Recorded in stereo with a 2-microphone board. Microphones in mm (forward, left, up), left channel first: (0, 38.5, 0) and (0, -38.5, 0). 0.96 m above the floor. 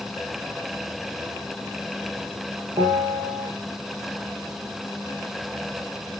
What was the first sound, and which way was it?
A bell, 70° right (ahead or behind).